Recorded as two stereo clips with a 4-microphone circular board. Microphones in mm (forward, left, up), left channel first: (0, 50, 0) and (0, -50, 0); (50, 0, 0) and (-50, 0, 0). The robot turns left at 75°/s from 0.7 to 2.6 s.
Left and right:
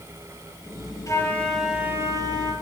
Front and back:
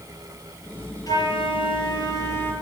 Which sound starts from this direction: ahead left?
A flute, at 1.1 s.